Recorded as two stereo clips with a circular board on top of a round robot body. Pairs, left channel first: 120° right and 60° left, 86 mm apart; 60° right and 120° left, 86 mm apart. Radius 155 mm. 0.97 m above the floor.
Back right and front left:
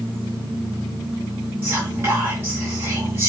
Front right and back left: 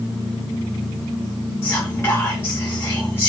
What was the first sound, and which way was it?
Whispering, straight ahead.